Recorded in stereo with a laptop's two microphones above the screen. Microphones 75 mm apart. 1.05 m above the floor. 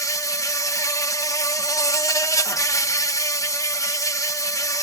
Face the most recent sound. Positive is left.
turn(degrees=45)  # may be behind; listen again after turning